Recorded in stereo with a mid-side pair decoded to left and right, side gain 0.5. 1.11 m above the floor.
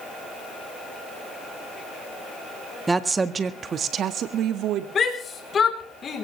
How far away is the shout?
About 3.5 m.